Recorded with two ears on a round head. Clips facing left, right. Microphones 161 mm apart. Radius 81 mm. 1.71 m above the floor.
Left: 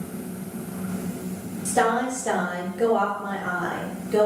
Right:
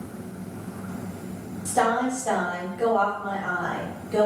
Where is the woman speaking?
25° left (ahead or behind), 0.7 m.